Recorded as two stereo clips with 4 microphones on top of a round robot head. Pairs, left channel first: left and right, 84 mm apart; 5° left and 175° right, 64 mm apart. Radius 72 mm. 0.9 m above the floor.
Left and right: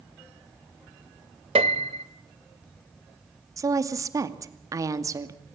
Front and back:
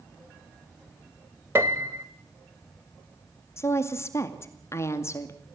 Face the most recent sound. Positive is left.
turn(degrees=-45)